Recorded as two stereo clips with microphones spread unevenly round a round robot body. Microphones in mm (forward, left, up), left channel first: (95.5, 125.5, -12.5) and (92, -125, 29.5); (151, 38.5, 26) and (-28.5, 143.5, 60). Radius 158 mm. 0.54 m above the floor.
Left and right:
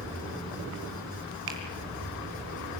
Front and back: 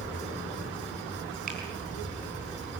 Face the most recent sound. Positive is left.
turn(degrees=-145)